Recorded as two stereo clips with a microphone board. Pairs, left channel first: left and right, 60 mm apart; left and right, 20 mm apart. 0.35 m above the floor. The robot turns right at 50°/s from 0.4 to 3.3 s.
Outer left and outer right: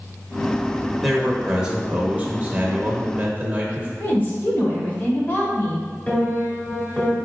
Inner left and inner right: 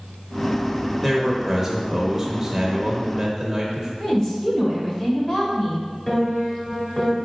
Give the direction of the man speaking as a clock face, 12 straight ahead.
6 o'clock.